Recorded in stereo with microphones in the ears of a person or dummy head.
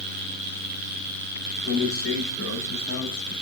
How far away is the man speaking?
About 6.5 m.